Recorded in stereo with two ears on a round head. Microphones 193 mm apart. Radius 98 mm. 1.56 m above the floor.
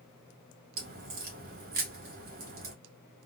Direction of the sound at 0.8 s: 45° right (ahead or behind).